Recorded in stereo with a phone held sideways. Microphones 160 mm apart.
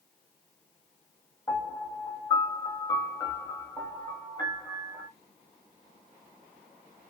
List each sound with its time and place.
1.5 s a piano: 25° left (ahead or behind), 0.9 m